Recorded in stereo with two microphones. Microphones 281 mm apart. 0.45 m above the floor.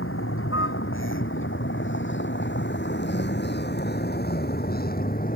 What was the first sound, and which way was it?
A vehicle, 50° left (ahead or behind).